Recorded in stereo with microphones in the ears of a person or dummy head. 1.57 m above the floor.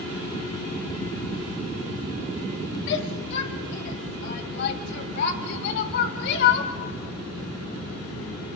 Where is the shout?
70° left (ahead or behind), 3 m; by 6.7 s 75° left (ahead or behind), 5 m.